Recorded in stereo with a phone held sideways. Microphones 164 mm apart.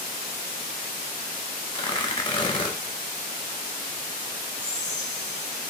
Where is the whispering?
25° left (ahead or behind), 1.3 m.